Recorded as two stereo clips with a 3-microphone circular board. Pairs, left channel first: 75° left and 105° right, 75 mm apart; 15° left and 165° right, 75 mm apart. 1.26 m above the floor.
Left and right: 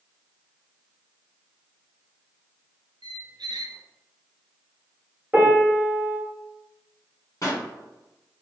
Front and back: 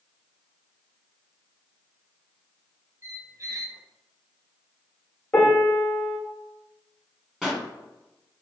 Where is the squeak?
115° right, 0.6 m.